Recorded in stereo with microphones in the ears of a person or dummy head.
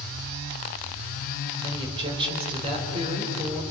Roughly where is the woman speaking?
Right.